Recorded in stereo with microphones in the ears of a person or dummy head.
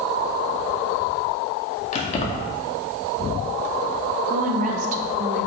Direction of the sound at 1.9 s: 45° left (ahead or behind).